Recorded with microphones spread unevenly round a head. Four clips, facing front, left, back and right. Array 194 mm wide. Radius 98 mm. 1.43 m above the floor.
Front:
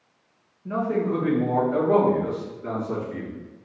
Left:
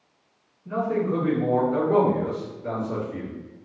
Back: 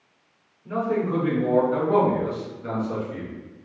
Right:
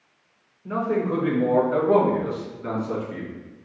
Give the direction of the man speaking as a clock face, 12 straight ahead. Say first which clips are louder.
Right 1 dB, even; 2 o'clock.